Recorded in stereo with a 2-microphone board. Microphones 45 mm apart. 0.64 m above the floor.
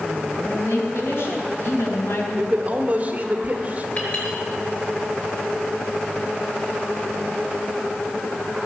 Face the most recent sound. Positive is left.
turn(degrees=45)  # may be behind; listen again after turning